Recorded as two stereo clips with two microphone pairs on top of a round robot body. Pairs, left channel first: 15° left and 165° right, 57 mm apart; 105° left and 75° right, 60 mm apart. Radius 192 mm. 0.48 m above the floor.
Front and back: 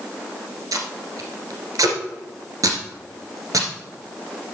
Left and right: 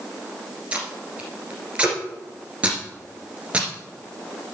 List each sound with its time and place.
0.7 s tape being pulled: 145° right, 1.8 m